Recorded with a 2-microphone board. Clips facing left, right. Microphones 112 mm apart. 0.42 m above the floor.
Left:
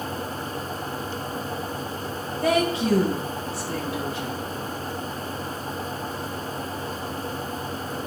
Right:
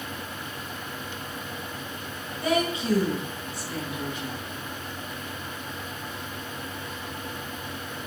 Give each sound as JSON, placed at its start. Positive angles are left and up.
{"t": 2.4, "sound": "a woman speaking", "side_deg": 35, "distance_m": 2.5}